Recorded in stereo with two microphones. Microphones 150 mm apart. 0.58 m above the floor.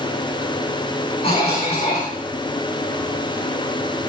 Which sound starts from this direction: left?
A cough, at 1.2 s.